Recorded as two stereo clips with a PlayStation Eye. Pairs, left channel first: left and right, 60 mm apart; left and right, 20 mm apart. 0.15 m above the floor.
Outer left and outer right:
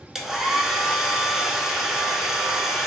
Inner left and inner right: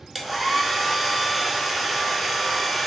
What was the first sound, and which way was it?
A hair dryer, 10° right (ahead or behind).